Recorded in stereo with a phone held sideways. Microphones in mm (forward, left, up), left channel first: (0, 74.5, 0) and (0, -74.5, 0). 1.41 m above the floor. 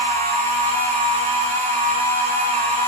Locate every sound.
0.0 s a machine running: 65° right (ahead or behind), 4 m